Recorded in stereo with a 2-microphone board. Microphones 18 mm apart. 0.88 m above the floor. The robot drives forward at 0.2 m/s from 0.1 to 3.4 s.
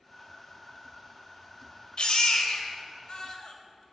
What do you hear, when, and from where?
2.0 s a baby crying: 55° left (ahead or behind), 1.3 m; by 3.8 s 50° left (ahead or behind), 1.5 m